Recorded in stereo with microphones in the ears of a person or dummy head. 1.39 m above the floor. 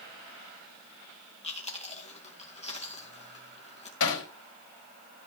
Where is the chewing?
35° left (ahead or behind), 2.5 m.